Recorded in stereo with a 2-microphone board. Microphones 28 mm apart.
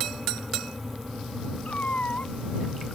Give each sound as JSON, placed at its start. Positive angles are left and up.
{"t": 1.6, "sound": "a cat meowing", "side_deg": 70}